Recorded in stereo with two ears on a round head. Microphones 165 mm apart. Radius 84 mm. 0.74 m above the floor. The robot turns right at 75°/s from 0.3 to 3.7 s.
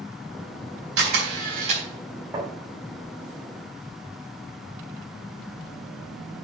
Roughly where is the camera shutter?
Right.